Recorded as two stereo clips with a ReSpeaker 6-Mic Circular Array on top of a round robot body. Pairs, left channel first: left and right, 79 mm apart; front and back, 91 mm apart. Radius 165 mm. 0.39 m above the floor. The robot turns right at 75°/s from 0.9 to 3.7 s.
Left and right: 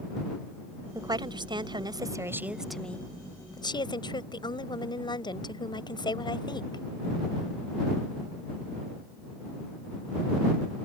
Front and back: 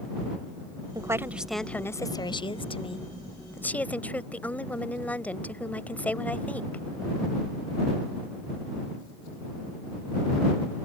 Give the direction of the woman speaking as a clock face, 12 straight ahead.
4 o'clock.